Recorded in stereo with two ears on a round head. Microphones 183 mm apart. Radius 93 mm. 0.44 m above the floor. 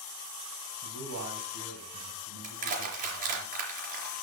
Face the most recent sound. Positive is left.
turn(degrees=-40)  # may be behind; listen again after turning